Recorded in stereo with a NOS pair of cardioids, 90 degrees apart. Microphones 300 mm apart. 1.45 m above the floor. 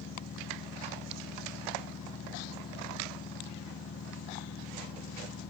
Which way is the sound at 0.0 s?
40° left.